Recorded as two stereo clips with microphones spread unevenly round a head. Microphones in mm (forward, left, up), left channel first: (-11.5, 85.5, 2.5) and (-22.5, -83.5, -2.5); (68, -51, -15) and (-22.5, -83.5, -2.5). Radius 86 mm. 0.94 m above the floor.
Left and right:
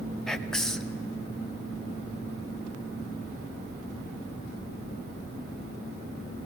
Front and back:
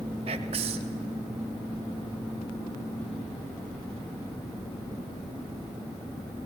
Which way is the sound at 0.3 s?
175° left.